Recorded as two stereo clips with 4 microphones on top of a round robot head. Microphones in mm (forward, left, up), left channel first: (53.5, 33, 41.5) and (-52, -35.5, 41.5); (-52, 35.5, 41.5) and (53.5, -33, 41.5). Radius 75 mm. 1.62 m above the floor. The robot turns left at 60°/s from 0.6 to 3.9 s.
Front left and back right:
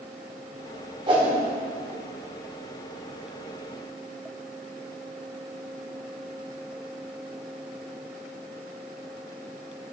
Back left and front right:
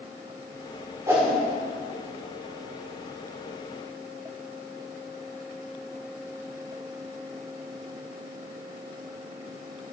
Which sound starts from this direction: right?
A whoosh, at 1.1 s.